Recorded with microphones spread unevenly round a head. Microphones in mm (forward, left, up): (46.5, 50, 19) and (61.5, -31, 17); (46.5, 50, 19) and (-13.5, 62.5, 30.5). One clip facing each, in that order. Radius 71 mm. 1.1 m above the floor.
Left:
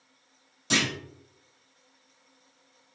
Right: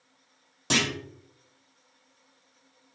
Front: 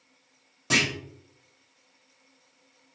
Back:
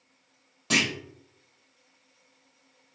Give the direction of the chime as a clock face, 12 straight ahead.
No chime in this recording.